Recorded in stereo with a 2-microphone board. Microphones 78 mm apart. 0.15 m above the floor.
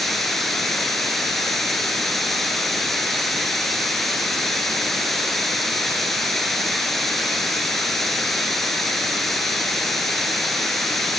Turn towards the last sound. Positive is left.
turn(degrees=5)  # may be behind; listen again after turning